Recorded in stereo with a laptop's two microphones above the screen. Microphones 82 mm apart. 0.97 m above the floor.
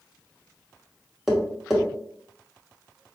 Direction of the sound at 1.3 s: 5° right (ahead or behind).